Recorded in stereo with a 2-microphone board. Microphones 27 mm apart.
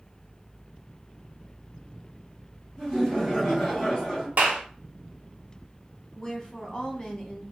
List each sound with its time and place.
2.8 s laughter: 25° left (ahead or behind), 2.5 m
4.4 s a clap: 55° right (ahead or behind), 1.4 m
6.1 s a woman speaking: 30° left (ahead or behind), 1.4 m